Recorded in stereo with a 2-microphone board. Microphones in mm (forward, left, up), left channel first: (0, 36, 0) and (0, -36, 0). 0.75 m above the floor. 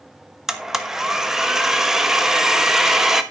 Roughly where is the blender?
Centre.